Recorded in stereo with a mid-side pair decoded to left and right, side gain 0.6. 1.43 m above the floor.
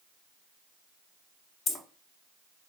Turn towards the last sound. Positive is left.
turn(degrees=40)